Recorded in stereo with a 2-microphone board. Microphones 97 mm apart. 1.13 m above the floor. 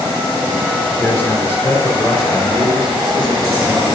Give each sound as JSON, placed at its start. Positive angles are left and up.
{"t": 1.0, "sound": "a man speaking", "side_deg": 25, "distance_m": 3.0}